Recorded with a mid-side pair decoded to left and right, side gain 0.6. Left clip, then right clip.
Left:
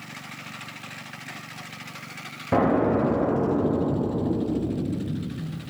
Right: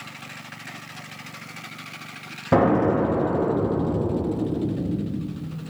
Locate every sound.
2.5 s an explosion: 25° right, 1.0 m